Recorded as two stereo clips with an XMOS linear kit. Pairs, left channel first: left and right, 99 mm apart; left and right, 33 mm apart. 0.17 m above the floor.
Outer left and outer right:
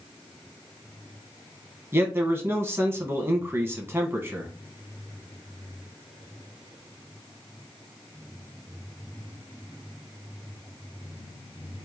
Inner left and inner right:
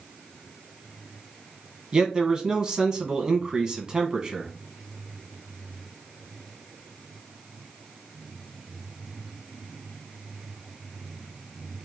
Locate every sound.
1.9 s a man speaking: 25° right (ahead or behind), 1.1 m